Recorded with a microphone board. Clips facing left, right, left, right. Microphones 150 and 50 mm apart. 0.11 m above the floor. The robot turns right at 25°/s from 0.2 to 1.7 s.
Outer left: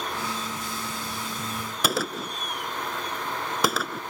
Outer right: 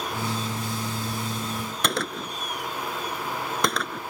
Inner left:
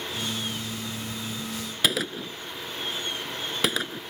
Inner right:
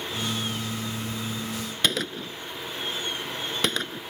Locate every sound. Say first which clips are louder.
1.8 s a gunshot: outer left 2 dB, inner left 1 dB; 5° left (ahead or behind)